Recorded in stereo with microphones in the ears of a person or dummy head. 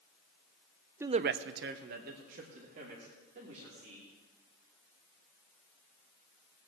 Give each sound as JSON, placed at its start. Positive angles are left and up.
{"t": 1.0, "sound": "a man speaking", "side_deg": -20, "distance_m": 0.5}